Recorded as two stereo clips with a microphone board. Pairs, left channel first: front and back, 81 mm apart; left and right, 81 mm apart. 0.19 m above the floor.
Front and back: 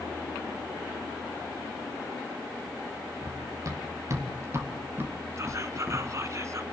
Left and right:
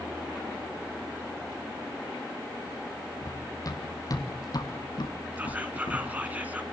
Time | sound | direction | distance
3.2 | running footsteps | 135° left | 4.5 m
5.4 | whispering | 155° right | 2 m